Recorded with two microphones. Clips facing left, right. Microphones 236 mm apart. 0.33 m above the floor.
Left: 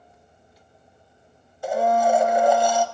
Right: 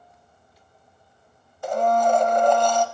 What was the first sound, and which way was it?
A blender, 10° left (ahead or behind).